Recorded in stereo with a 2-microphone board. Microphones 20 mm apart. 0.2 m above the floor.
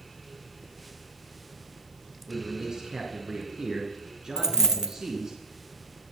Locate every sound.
2.3 s a man speaking: 35° right (ahead or behind), 3 m
4.4 s a dropped coin: 30° right (ahead or behind), 0.9 m